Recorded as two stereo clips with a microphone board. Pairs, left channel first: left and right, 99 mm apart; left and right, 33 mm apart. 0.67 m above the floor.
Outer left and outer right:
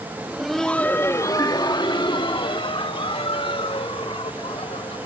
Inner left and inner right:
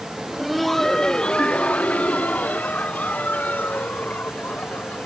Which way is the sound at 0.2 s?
15° right (ahead or behind).